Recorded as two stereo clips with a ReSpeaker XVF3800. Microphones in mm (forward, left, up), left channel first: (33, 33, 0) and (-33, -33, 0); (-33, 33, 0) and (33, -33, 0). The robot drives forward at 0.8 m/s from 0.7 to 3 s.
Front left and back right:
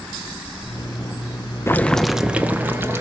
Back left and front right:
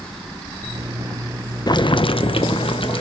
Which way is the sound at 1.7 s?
105° left.